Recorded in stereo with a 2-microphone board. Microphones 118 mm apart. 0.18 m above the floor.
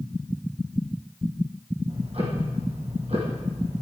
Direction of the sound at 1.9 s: 55° right (ahead or behind).